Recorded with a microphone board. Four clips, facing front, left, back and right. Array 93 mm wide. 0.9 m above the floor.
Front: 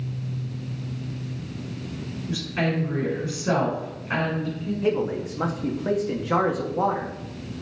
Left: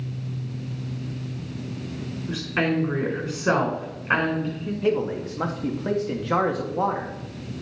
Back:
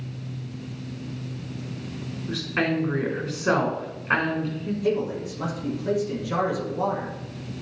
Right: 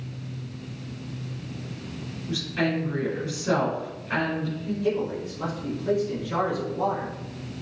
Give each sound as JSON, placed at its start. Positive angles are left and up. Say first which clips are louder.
{"t": 2.3, "sound": "a woman speaking", "louder": "left 2 dB, back 1 dB", "azimuth_deg": 125, "distance_m": 3.5}
{"t": 4.8, "sound": "a man speaking", "louder": "left 4 dB, front 1 dB", "azimuth_deg": 55, "distance_m": 1.7}